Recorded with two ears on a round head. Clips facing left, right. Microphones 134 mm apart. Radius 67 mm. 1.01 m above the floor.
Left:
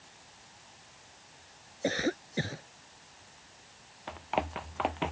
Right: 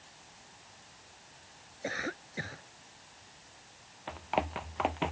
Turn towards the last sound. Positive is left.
turn(degrees=0)  # may be behind; listen again after turning